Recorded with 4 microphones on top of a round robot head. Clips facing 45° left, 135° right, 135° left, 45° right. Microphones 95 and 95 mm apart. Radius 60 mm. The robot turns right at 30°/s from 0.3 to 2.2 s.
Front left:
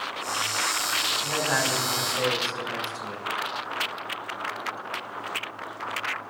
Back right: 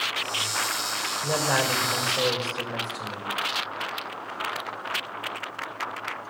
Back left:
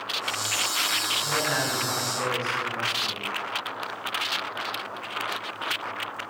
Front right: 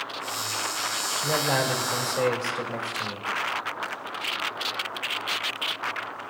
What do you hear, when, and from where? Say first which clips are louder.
1.2 s a man speaking: back right 3 dB, front right 3 dB; 85° right, 2.5 m; by 3.3 s 55° right, 2.5 m